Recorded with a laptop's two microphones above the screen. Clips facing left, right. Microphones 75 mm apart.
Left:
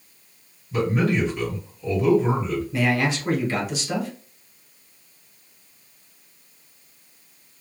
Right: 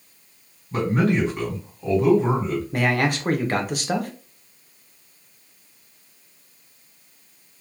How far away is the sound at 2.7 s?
About 0.6 m.